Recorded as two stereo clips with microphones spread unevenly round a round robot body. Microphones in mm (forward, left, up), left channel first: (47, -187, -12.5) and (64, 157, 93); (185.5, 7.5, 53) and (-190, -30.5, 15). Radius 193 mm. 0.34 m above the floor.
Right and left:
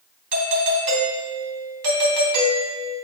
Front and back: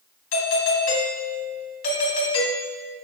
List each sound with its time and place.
0.3 s a doorbell: 50° left, 2.5 m